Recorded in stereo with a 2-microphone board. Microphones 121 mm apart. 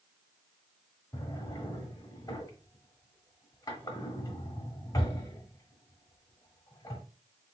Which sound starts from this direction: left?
A drawer, at 1.1 s.